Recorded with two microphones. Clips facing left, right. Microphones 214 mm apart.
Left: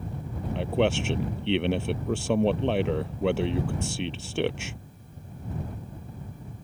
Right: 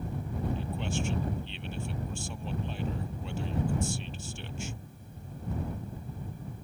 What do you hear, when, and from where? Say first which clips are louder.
0.6 s a man speaking: left 10 dB; 75° left (ahead or behind)